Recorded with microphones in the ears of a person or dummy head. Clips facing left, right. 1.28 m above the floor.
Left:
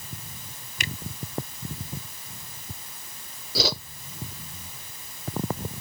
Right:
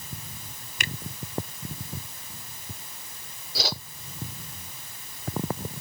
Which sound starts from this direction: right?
A finger snap, at 0.8 s.